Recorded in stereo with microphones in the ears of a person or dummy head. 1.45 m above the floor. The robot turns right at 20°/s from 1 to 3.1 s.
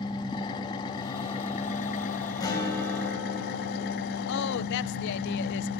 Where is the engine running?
25° left, 2.0 m; by 5.8 s 65° left, 2.0 m.